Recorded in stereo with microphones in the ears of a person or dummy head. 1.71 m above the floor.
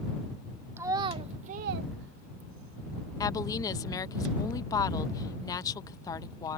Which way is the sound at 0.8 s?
10° right (ahead or behind).